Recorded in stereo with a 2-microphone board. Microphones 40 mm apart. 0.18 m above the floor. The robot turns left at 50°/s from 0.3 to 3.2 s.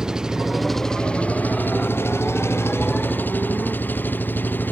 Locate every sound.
0.0 s an engine running: 165° right; by 4.7 s 50° left